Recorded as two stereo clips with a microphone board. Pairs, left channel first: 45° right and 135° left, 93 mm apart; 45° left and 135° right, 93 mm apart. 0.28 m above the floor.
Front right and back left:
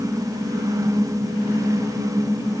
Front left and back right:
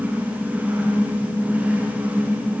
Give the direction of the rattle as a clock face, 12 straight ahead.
I don't hear a rattle.